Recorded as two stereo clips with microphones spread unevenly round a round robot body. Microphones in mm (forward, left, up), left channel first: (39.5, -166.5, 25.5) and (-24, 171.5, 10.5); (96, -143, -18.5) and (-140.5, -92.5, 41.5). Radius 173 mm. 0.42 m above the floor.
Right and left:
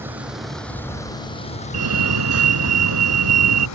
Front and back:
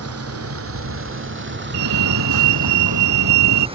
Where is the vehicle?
175° right; by 3.8 s 125° right.